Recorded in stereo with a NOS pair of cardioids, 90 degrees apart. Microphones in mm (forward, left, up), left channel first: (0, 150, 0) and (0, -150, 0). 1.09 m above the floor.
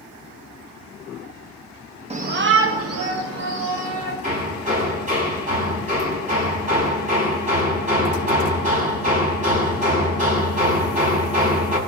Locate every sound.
2.1 s a shout: 20° right, 1.0 m; by 4.1 s 65° right, 3.5 m
4.2 s hammering: 25° right, 4 m